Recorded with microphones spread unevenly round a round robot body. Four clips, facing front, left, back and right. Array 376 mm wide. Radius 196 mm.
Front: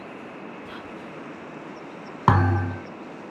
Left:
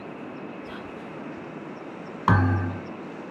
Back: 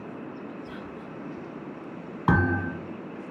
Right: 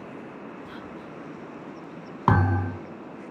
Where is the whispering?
40° right, 2.5 m.